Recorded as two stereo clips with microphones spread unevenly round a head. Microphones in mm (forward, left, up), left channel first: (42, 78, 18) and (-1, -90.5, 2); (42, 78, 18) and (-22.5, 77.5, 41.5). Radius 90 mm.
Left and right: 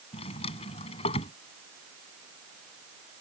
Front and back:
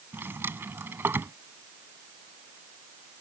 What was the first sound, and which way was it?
A drawer, 135° left.